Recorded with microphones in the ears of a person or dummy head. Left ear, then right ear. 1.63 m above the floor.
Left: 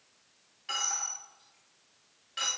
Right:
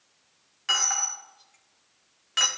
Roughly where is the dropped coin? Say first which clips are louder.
Right 8 dB; right.